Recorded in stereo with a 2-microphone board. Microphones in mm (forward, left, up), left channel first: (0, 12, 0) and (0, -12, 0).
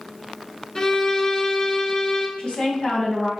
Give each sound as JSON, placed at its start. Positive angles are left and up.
{"t": 0.8, "sound": "a violin", "side_deg": 25, "distance_m": 0.7}
{"t": 2.4, "sound": "a woman speaking", "side_deg": 45, "distance_m": 2.0}